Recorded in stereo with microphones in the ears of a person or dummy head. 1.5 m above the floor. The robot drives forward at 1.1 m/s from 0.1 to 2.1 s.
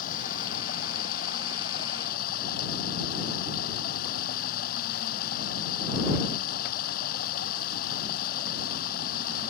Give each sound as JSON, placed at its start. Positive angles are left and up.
{"t": 0.0, "sound": "running water", "side_deg": 45}